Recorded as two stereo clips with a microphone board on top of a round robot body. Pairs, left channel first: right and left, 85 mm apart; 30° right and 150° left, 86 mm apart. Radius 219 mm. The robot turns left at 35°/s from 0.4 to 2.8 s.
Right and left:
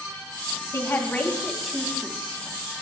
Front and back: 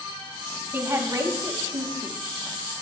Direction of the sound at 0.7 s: 145° right.